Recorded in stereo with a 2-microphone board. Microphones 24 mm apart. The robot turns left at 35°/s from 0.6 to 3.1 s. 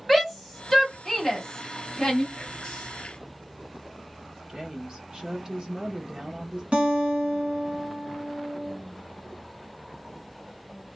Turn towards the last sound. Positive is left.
turn(degrees=-70)  # may be behind; listen again after turning